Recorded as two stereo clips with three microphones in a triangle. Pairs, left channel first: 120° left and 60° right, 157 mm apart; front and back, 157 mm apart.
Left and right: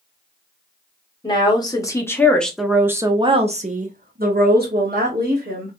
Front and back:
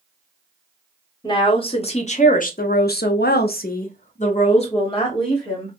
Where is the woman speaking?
60° left, 1.3 m; by 5.8 s 65° right, 1.6 m.